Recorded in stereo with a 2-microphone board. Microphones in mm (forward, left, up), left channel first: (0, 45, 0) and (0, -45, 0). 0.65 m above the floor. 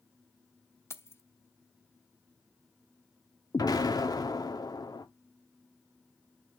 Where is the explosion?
45° left (ahead or behind), 1.6 m.